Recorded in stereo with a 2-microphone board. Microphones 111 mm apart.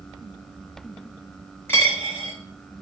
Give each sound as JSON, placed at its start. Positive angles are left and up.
{"t": 1.7, "sound": "a dropped coin", "side_deg": 20, "distance_m": 1.4}